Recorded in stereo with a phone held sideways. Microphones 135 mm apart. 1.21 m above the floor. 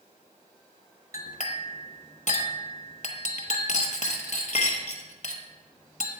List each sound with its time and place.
1.1 s a clink: 60° left (ahead or behind), 1.1 m